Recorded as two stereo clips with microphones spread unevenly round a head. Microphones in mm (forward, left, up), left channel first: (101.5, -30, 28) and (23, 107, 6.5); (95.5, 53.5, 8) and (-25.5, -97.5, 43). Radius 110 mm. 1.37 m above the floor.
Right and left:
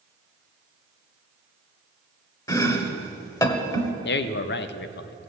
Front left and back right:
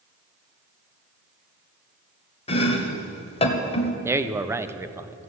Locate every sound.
2.5 s chopping: 10° right, 1.4 m
4.0 s a man speaking: 50° right, 0.8 m